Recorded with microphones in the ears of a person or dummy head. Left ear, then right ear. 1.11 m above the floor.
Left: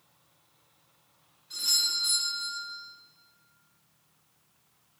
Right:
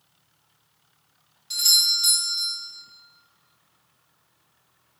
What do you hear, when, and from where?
1.5 s a doorbell: 40° right (ahead or behind), 2.5 m